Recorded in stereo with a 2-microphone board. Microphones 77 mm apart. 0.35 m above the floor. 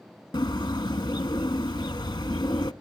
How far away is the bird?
About 0.7 m.